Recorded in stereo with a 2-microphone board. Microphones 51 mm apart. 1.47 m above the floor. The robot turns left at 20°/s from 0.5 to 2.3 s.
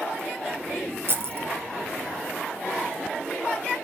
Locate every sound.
1.1 s keys jangling: 50° right (ahead or behind), 0.5 m